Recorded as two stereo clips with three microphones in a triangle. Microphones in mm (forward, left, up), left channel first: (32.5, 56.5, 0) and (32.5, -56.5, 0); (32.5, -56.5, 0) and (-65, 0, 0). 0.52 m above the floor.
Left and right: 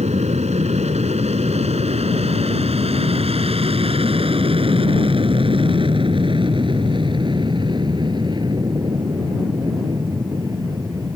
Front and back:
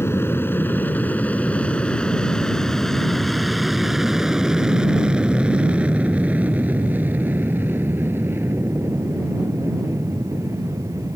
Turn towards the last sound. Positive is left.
turn(degrees=-145)